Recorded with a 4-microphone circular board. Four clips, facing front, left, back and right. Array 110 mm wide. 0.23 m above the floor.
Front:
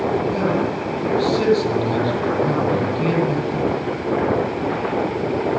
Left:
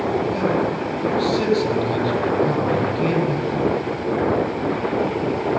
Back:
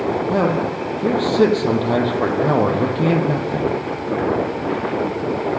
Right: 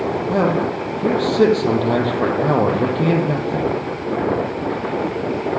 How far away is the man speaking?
About 7 m.